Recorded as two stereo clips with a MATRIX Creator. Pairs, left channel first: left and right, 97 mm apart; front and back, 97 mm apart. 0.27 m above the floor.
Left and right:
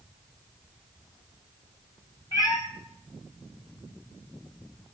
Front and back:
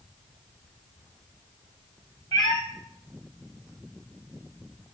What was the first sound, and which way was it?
A cat meowing, 40° left.